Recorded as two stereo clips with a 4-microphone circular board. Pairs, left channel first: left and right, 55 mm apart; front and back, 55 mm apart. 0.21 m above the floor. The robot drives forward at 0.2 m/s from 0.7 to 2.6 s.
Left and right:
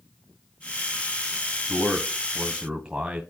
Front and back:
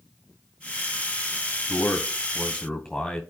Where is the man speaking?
50° right, 1.2 m; by 3.2 s 65° right, 1.1 m.